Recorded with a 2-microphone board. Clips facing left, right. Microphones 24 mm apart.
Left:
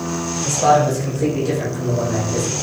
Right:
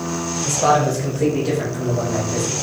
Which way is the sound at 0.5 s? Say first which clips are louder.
Left 2 dB; 5° left (ahead or behind).